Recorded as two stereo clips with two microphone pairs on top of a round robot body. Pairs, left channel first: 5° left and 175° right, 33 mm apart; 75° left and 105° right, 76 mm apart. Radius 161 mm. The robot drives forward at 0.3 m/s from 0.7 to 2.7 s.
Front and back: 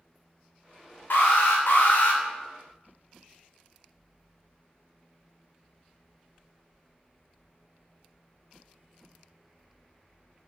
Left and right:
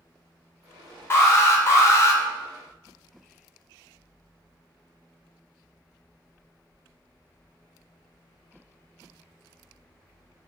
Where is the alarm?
20° left, 0.9 m; by 2.2 s 30° left, 0.6 m.